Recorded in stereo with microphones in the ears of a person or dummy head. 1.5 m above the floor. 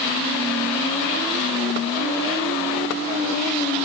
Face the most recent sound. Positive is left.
No sound to turn to.